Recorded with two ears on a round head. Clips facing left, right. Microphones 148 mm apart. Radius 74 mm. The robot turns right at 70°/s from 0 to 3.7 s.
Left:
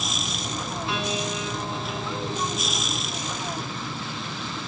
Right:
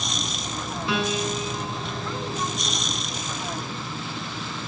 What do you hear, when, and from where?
0.9 s a piano: 70° right, 6 m; by 2.8 s 70° left, 6 m